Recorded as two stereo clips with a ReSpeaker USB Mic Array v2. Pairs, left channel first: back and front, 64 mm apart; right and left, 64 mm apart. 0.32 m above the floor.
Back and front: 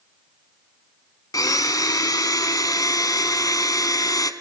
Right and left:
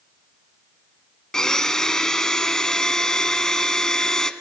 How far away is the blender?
About 0.7 m.